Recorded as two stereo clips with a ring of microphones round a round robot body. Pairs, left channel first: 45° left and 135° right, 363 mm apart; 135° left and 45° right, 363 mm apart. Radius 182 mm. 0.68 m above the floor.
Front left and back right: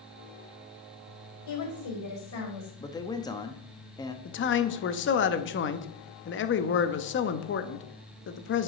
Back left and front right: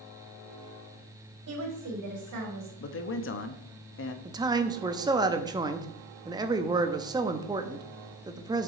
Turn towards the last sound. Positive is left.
turn(degrees=25)